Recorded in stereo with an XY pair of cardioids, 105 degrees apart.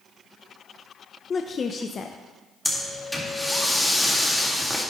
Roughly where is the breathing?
Ahead.